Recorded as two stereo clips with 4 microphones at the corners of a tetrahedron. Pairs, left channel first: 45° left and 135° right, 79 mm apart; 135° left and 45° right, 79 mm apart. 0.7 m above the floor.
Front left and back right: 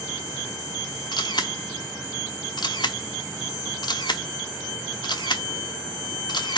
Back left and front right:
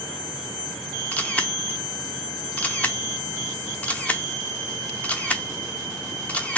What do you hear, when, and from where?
1.1 s a camera shutter: 65° left, 0.8 m